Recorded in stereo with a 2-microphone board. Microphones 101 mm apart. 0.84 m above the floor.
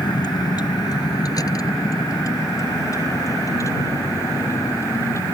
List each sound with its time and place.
0.0 s a vehicle: 45° left (ahead or behind); by 5.3 s 30° left (ahead or behind)